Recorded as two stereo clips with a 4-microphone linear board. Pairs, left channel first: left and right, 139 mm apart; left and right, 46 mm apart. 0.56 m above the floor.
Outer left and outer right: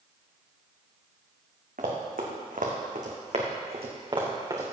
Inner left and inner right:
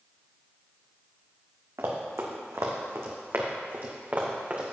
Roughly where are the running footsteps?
Right.